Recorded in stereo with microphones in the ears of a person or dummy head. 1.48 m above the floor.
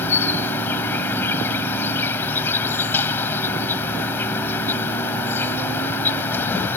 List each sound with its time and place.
0.0 s an insect: 15° left (ahead or behind)